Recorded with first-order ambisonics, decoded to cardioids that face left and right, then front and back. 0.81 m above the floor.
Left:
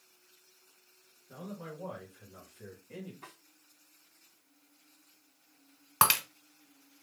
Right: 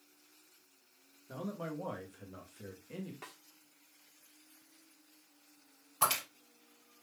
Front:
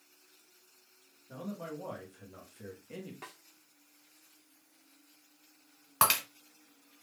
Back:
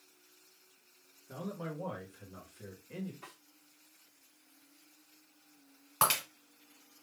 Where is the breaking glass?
75° left, 1.9 m.